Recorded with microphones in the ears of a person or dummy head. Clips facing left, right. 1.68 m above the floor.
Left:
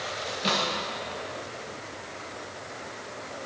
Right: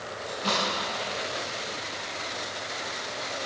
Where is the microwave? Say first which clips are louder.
Even; 25° left (ahead or behind), 1.2 m.